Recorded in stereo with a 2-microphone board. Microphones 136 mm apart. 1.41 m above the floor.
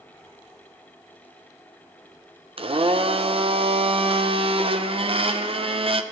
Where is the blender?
45° right (ahead or behind), 0.7 m.